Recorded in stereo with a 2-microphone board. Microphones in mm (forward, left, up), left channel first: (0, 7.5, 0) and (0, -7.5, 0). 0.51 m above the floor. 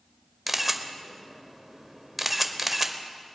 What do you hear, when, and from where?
0.5 s a camera shutter: 5° right (ahead or behind), 0.7 m